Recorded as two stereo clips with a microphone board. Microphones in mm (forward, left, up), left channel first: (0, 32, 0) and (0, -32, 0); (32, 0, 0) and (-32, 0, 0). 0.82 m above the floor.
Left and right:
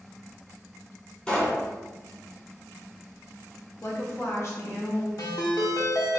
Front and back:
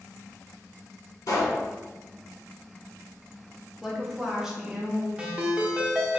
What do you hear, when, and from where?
1.3 s a pop: 20° left, 1.8 m
3.8 s a woman speaking: 100° left, 1.3 m
5.2 s a ringtone: 105° left, 0.8 m